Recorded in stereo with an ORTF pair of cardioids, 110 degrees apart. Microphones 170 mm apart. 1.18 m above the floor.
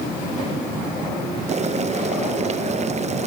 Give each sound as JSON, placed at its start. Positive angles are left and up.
{"t": 1.5, "sound": "boiling", "azimuth_deg": -40, "distance_m": 0.6}